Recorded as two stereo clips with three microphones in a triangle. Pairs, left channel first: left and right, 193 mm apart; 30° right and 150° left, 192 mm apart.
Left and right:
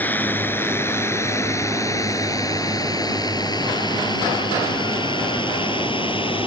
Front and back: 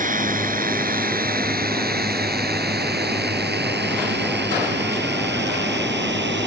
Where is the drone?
165° left; by 6.5 s 150° left.